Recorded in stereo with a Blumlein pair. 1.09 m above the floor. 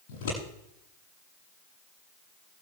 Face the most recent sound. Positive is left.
turn(degrees=60)